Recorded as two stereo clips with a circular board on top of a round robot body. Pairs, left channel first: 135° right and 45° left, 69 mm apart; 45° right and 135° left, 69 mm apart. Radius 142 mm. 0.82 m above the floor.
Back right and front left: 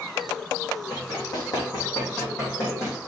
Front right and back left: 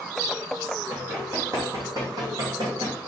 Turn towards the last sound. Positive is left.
turn(degrees=165)